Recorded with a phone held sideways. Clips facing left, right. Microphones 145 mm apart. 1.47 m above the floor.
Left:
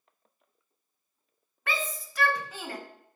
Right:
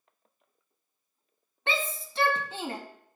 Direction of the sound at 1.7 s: 30° right (ahead or behind).